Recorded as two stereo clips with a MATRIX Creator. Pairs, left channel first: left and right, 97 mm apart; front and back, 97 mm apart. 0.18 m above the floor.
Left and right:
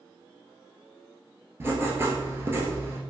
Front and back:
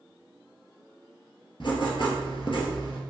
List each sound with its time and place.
1.6 s writing: 25° right, 1.1 m